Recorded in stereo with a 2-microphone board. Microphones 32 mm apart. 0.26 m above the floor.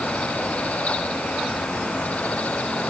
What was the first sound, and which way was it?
Only background noise.